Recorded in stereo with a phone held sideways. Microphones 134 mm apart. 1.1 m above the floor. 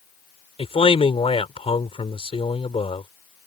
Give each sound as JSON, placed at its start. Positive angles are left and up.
{"t": 0.6, "sound": "a man speaking", "side_deg": 45}